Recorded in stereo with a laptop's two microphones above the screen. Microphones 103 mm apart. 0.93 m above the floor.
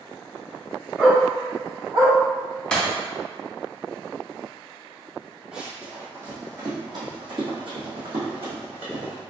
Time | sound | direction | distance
1.0 | a dog barking | 5° right (ahead or behind) | 1.2 m
2.7 | breaking glass | 10° left (ahead or behind) | 0.9 m
5.5 | running footsteps | 5° right (ahead or behind) | 1.2 m